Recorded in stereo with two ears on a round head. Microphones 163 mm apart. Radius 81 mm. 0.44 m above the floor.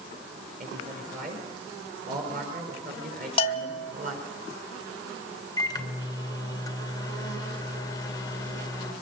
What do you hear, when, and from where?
0.6 s a man speaking: 50° right (ahead or behind), 9 m; by 4.3 s 45° right (ahead or behind), 5.5 m
3.4 s a bell: 30° left (ahead or behind), 1.7 m
5.6 s a microwave: 20° left (ahead or behind), 1.8 m